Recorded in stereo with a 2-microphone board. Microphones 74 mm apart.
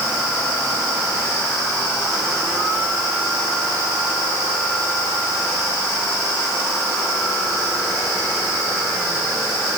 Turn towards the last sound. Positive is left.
No sound to turn to.